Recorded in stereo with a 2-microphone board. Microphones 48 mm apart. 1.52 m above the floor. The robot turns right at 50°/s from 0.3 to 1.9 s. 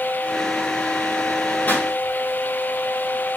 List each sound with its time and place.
1.7 s a pop: 35° left (ahead or behind), 2.5 m; by 1.9 s 25° left (ahead or behind), 2.5 m